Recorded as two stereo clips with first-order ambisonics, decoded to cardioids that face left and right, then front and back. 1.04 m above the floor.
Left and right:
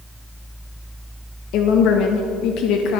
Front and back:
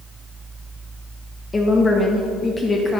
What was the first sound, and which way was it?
A woman speaking, 75° left.